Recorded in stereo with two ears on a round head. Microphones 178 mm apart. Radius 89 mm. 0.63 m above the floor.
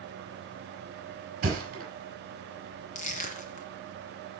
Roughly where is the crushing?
Left.